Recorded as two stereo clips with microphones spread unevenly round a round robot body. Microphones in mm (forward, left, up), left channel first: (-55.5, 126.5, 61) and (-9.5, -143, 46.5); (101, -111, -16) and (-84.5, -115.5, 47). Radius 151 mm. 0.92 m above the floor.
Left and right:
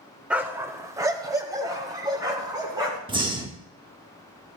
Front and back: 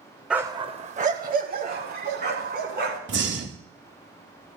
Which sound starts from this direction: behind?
A dog barking, at 0.3 s.